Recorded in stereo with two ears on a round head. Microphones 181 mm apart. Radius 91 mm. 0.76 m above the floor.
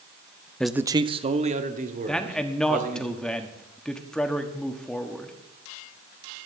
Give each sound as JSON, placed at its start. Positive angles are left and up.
{"t": 0.6, "sound": "a man speaking", "side_deg": 5, "distance_m": 0.5}
{"t": 2.1, "sound": "a man speaking", "side_deg": 5, "distance_m": 1.2}